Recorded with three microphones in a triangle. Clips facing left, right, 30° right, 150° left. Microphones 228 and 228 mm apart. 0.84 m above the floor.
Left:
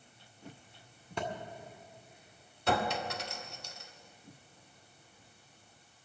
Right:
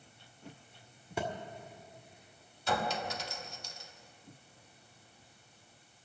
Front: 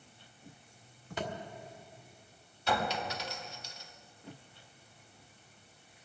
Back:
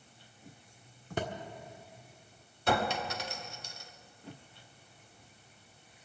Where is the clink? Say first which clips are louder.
Left 2 dB, back 3 dB; 115° left, 1.2 m.